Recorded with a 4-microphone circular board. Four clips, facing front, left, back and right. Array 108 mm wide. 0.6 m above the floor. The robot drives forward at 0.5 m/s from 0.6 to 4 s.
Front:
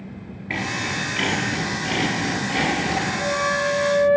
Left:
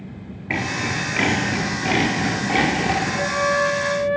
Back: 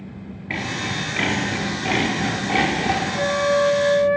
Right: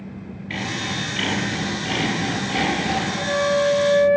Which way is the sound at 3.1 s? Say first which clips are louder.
Right 4 dB, back 4 dB; 150° left.